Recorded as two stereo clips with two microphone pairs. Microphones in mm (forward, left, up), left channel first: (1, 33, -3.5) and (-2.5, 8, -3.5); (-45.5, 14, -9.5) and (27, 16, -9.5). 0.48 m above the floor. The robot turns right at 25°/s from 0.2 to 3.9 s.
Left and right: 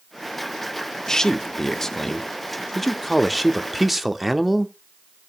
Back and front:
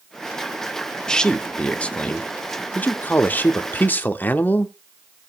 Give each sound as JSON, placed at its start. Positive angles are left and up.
{"t": 1.1, "sound": "a man speaking", "azimuth_deg": 115, "distance_m": 0.7}